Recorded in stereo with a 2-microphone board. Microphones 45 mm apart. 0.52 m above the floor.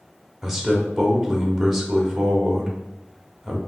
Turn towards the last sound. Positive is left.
turn(degrees=-5)  # may be behind; listen again after turning